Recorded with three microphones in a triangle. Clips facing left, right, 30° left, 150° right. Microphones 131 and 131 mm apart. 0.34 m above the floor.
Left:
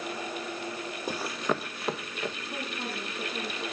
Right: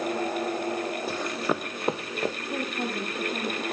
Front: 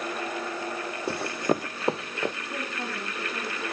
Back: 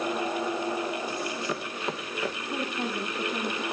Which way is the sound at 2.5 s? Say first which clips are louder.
Right 6 dB, back 3 dB; 65° right.